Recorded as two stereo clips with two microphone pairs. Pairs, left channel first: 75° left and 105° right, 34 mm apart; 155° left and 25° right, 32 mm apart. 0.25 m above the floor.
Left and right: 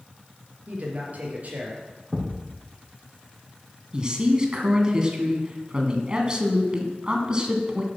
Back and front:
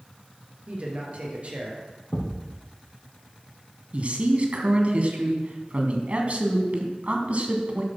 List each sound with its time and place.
0.7 s a man speaking: 65° right, 4 m
2.1 s a thud: 160° left, 4 m
3.9 s a man speaking: 45° right, 2 m